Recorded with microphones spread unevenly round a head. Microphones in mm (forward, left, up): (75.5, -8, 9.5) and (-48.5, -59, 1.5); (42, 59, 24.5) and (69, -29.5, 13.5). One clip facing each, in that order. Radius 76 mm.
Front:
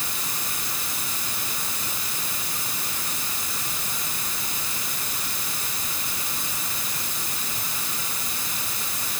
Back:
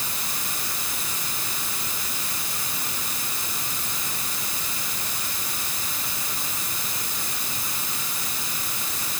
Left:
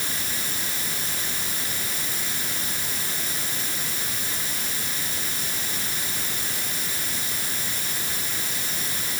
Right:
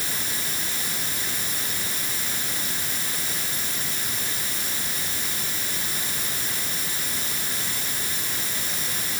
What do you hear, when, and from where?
Only background noise.